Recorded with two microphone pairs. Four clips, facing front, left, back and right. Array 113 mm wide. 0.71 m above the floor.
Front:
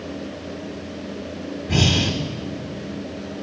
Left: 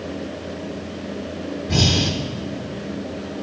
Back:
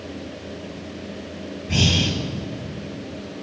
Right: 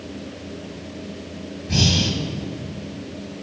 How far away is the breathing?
About 0.6 m.